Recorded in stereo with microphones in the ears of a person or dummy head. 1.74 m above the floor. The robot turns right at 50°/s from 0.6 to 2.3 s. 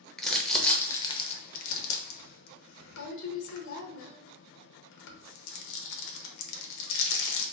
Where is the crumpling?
5° left (ahead or behind), 0.8 m; by 7.5 s 80° left, 0.8 m.